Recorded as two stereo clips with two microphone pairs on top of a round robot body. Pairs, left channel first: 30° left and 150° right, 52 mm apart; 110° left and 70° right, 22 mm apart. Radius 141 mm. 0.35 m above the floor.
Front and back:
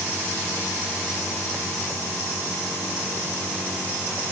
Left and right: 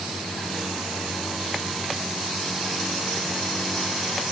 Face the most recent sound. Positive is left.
No sound to turn to.